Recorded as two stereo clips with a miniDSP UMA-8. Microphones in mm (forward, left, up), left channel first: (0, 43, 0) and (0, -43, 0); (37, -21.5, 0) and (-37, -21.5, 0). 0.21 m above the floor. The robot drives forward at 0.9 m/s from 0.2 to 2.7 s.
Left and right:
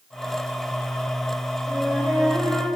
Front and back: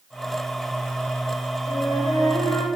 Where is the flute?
15° right, 8 m.